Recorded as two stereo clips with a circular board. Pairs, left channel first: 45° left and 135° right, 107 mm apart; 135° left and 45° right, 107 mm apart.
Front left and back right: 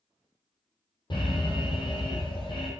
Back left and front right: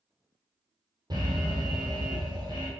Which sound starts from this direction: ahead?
An alarm, at 1.1 s.